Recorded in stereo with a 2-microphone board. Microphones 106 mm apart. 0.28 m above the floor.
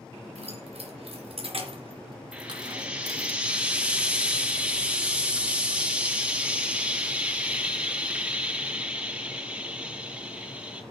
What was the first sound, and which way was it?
Keys jangling, 75° right (ahead or behind).